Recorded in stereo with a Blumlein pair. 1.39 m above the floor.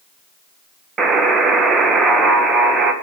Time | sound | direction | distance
1.0 | a buzzer | 20° right | 1.3 m